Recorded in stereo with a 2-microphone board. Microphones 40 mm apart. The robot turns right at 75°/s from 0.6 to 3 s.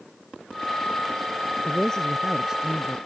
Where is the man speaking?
140° left; by 3.0 s 125° right.